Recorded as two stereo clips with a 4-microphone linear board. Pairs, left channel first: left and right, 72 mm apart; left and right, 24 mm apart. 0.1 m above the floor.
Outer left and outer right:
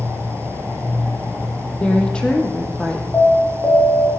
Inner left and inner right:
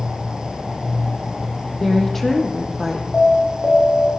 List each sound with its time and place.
1.8 s a woman speaking: 15° left (ahead or behind), 5 m; by 3.0 s 5° left (ahead or behind), 5.5 m
3.1 s an alarm: 25° left (ahead or behind), 9.5 m